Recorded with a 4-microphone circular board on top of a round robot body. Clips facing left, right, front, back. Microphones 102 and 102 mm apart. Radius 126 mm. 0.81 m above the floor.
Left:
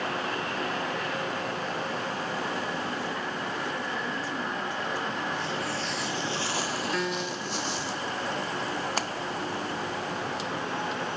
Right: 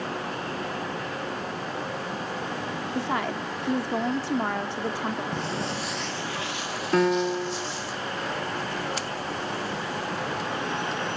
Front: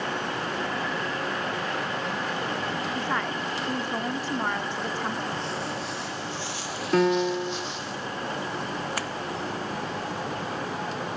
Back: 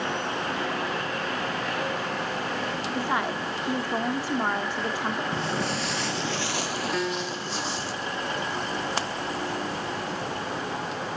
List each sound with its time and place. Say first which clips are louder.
3.0 s a woman speaking: right 5 dB, back 1 dB; 100° right, 3 m
5.3 s footsteps: right 1 dB, back 3 dB; 125° right, 1.2 m; by 7.9 s 120° left, 3 m
6.9 s a piano: right 8 dB, front 7 dB; 45° right, 1.1 m
9.0 s a splash: left 1 dB, back 2 dB; 120° left, 1.0 m